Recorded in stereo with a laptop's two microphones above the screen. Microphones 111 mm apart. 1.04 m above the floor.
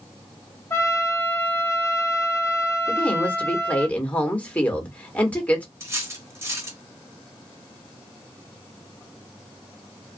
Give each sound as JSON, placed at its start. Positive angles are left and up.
{"t": 0.7, "sound": "a trumpet", "side_deg": 25, "distance_m": 0.7}
{"t": 2.9, "sound": "a woman speaking", "side_deg": 10, "distance_m": 1.3}
{"t": 5.8, "sound": "cutlery clinking", "side_deg": -25, "distance_m": 0.6}